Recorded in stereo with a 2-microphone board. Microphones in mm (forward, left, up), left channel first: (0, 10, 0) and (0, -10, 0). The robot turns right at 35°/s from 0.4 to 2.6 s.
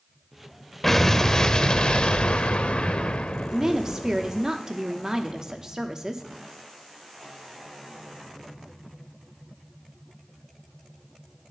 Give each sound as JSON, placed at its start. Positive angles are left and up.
{"t": 0.8, "sound": "an explosion", "azimuth_deg": 20, "distance_m": 0.5}
{"t": 3.5, "sound": "a woman speaking", "side_deg": -30, "distance_m": 0.9}